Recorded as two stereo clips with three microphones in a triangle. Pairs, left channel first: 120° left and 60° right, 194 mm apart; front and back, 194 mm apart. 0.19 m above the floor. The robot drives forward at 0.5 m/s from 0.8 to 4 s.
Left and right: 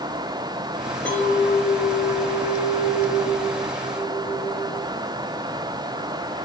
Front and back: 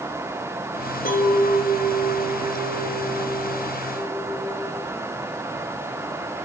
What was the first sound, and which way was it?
A clink, 40° left.